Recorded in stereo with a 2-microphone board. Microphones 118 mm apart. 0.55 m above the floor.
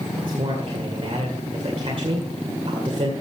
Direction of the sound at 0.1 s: 45° right (ahead or behind).